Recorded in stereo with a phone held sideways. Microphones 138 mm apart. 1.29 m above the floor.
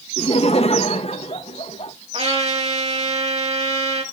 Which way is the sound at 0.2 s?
50° left (ahead or behind).